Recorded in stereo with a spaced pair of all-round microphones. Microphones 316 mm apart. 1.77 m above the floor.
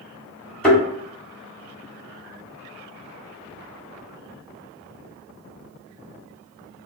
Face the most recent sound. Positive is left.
turn(degrees=5)  # may be behind; listen again after turning